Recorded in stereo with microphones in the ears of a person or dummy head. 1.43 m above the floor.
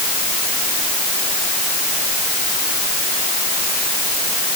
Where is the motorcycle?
I don't hear a motorcycle.